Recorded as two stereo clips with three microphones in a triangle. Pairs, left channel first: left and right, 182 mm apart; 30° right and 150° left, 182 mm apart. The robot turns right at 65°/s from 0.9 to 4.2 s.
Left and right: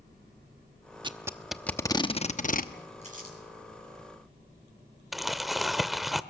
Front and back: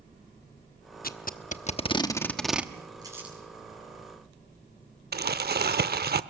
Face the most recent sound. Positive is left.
turn(degrees=180)